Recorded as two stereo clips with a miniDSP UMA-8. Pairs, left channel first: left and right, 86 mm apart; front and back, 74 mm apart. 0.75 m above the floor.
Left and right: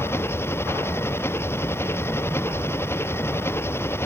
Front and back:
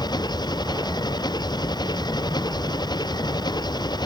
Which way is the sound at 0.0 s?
25° left.